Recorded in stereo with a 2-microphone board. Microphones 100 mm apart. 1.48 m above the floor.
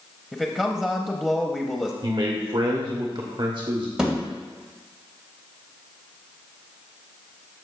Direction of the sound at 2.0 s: 55° right (ahead or behind).